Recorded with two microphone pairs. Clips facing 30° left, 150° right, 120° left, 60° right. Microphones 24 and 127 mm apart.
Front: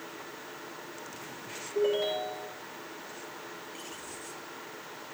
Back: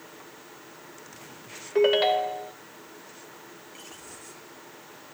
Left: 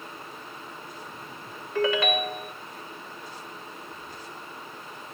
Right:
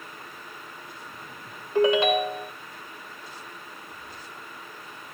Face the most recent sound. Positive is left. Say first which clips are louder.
# back 7 dB, right 4 dB
turn(degrees=-125)